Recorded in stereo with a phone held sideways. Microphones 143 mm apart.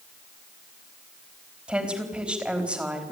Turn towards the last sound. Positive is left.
turn(degrees=-5)  # may be behind; listen again after turning